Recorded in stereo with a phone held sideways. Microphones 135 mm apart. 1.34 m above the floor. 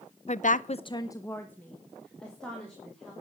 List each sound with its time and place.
0.3 s a woman speaking: 50° left (ahead or behind), 0.6 m; by 3.1 s 5° left (ahead or behind), 3.5 m